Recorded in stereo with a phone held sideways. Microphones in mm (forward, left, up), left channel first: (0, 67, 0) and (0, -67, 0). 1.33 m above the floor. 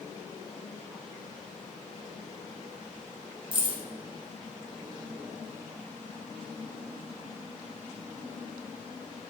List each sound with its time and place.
3.5 s keys jangling: 40° right (ahead or behind), 0.6 m